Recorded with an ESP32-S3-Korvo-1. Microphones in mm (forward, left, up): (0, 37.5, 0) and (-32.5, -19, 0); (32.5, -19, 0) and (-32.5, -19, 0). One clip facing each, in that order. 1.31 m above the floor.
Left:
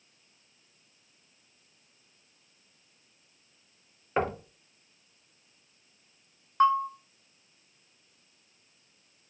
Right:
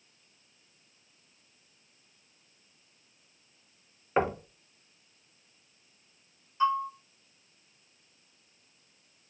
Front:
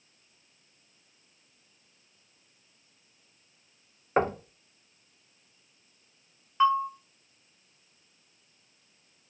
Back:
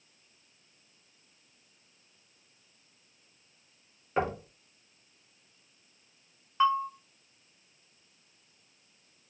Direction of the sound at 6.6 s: 90° left.